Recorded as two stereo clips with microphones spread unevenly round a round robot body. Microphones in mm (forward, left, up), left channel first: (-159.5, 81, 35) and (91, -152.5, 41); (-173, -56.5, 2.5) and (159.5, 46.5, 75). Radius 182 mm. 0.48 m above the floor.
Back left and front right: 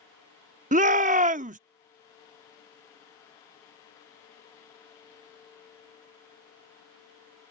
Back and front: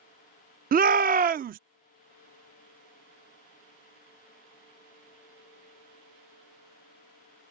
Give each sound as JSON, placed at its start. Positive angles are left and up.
{"t": 0.7, "sound": "a shout", "azimuth_deg": -40}